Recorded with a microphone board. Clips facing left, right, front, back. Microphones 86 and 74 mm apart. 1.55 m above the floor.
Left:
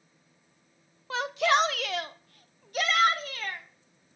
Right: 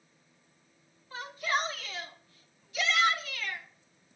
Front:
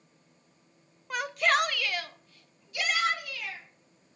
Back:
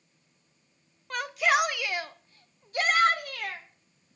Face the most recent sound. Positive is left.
turn(degrees=145)